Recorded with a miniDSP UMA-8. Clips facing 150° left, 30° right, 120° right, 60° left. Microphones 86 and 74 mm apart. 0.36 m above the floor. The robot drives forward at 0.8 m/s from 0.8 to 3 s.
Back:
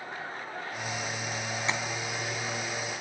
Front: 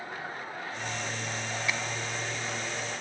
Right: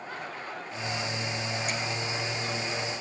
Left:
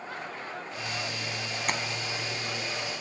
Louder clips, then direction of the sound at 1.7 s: Back 2 dB, left 7 dB; 90° left.